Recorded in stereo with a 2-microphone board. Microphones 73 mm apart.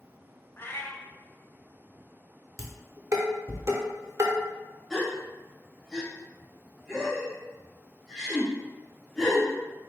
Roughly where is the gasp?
Centre.